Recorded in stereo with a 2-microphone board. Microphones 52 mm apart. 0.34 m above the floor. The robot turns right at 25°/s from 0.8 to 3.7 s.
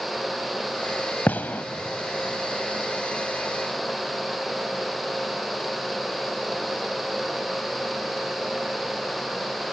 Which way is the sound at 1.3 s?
35° left (ahead or behind).